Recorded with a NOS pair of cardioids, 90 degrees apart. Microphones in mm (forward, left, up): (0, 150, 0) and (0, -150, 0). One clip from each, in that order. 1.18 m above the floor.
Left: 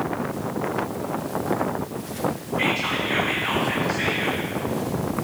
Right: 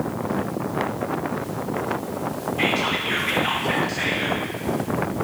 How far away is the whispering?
About 0.8 m.